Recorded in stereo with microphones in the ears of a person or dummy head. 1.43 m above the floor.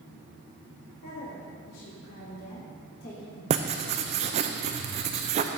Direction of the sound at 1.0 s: 85° left.